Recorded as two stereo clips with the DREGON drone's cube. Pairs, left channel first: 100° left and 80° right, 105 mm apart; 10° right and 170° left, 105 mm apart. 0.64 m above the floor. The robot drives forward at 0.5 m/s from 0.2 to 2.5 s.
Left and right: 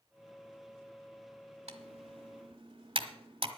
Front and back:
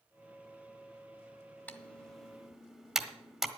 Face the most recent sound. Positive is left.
turn(degrees=-105)